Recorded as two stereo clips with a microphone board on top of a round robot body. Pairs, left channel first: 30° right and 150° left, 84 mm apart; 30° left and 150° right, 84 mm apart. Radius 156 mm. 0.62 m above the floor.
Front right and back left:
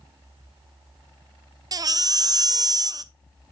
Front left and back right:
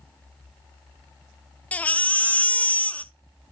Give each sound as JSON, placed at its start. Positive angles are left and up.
{"t": 1.7, "sound": "a baby crying", "azimuth_deg": 105, "distance_m": 0.7}